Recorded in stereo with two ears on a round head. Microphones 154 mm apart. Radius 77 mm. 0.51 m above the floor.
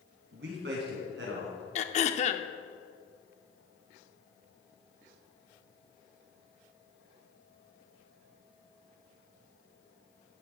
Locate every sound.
0.3 s a man speaking: 75° right (ahead or behind), 4 m; by 1.6 s 80° right, 5.5 m
1.8 s throat clearing: 40° left (ahead or behind), 0.7 m